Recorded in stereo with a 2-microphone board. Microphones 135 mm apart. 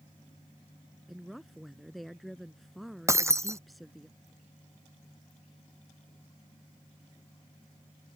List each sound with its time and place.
1.1 s a woman speaking: centre (ahead or behind)
3.1 s breaking glass: 20° right (ahead or behind)